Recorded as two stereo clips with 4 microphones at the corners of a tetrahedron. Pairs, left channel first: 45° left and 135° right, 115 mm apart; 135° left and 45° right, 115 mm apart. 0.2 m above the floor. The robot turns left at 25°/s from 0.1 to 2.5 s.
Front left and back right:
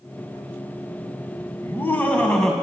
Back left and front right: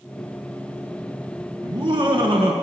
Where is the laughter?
15° right, 1.6 m; by 2.5 s 40° right, 1.6 m.